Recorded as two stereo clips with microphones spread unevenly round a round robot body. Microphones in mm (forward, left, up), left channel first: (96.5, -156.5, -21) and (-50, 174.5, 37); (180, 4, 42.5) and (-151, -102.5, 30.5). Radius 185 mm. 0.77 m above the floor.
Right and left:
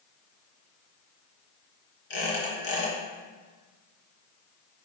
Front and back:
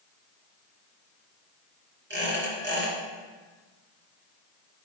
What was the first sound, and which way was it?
A squeak, 100° right.